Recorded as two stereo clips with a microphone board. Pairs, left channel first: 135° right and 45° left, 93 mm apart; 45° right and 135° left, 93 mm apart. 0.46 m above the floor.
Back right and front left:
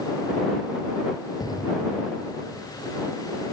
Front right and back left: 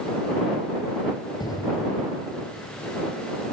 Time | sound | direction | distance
1.4 | an explosion | 90° right | ?